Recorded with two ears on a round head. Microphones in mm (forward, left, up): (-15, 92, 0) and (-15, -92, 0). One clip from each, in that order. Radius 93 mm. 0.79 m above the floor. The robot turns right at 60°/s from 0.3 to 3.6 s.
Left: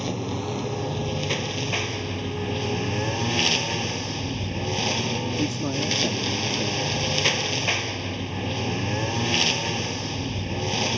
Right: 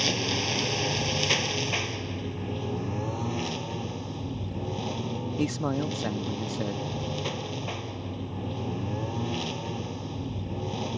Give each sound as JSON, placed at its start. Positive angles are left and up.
{"t": 0.0, "sound": "a lawn mower", "azimuth_deg": -90}
{"t": 5.4, "sound": "a man speaking", "side_deg": -55}